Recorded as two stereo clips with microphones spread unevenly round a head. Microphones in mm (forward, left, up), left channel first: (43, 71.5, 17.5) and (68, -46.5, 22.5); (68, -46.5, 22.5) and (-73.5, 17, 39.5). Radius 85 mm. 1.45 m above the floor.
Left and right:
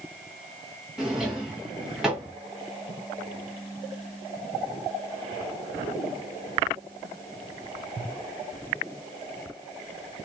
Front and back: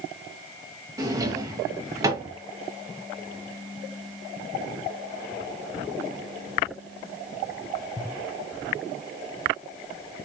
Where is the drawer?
160° right, 0.6 m.